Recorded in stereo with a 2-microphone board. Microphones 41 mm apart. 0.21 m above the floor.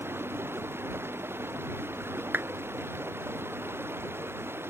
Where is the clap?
55° right (ahead or behind).